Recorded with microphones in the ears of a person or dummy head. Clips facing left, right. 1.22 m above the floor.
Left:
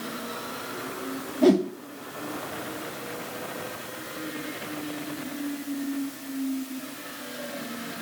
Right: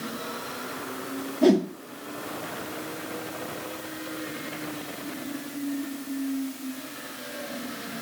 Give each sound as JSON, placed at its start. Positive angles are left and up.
{"t": 1.4, "sound": "a whoosh", "side_deg": 0, "distance_m": 0.7}